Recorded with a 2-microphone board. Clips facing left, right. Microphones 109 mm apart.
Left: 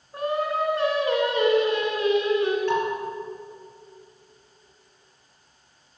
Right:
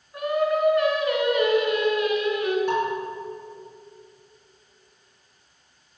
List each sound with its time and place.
0.1 s singing: 30° left (ahead or behind), 1.9 m
2.7 s dishes clattering: 10° right (ahead or behind), 5.5 m